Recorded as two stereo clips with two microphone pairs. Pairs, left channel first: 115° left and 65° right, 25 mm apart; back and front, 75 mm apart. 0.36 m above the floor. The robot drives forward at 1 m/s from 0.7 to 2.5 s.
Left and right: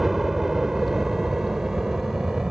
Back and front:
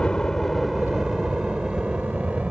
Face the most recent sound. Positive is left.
turn(degrees=-65)